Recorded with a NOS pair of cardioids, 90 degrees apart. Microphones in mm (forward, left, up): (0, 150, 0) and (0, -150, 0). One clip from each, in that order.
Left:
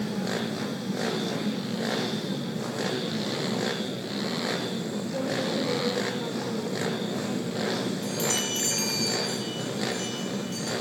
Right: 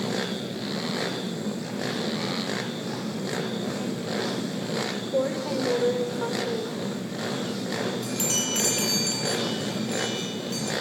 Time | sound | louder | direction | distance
5.1 | a woman speaking | right 2 dB | 20° right | 5 m
8.0 | a chime | right 1 dB | 15° right | 9.5 m